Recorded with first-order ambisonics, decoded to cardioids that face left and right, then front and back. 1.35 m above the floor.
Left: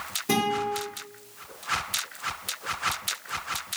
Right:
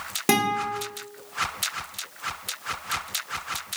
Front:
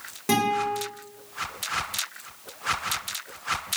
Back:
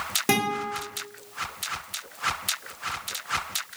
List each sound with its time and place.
0.3 s a guitar: 110° right, 1.2 m